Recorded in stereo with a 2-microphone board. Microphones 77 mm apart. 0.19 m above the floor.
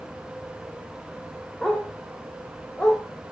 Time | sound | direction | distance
1.6 | a dog barking | 5° left (ahead or behind) | 4.5 m